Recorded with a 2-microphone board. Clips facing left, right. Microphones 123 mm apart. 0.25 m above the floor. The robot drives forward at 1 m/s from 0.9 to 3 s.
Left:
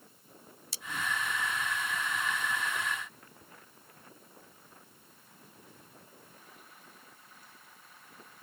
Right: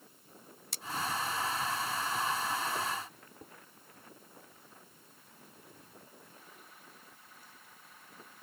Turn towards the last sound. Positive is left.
turn(degrees=-50)  # may be behind; listen again after turning